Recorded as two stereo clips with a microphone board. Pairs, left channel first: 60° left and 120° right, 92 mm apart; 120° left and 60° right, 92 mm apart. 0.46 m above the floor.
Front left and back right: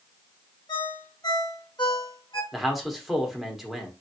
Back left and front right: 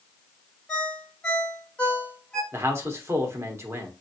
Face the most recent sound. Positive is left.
turn(degrees=-35)